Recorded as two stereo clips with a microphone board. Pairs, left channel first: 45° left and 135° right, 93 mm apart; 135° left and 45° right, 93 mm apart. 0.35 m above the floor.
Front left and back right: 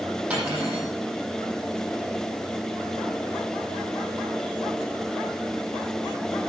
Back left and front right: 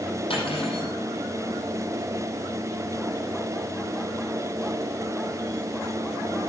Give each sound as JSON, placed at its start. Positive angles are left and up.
{"t": 0.3, "sound": "cutlery clinking", "azimuth_deg": 150, "distance_m": 6.5}